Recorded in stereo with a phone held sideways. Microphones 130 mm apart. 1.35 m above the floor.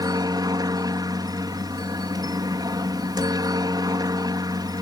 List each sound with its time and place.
0.0 s a helicopter: 30° right (ahead or behind)